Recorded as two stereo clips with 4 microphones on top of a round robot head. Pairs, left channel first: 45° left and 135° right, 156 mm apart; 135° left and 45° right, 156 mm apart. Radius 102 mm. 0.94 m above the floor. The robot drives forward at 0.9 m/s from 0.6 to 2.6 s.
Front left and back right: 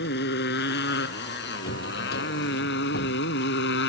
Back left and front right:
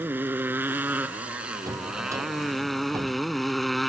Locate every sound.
0.0 s a motorcycle: 35° left; by 3.9 s 45° left
1.7 s a drawer: 25° left